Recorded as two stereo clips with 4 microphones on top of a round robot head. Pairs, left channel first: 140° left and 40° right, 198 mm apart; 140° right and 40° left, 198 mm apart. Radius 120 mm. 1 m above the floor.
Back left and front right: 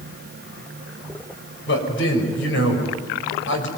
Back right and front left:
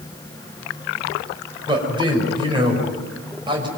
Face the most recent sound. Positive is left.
turn(degrees=110)